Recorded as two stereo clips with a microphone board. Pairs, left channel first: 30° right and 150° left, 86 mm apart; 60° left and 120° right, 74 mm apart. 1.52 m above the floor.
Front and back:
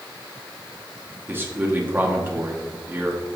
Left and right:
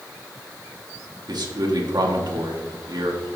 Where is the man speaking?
145° right, 1.7 m.